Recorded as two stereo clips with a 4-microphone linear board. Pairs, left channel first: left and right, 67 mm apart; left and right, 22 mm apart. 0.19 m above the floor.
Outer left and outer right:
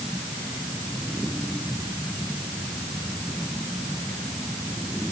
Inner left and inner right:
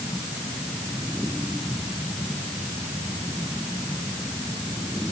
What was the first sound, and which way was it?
Only background noise.